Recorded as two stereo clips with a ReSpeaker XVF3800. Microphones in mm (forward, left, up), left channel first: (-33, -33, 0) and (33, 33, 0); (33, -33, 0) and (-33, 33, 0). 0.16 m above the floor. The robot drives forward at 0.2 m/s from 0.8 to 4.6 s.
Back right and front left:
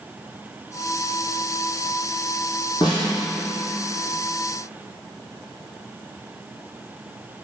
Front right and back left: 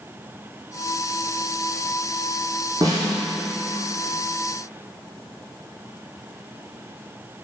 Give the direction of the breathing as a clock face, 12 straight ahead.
I don't hear breathing.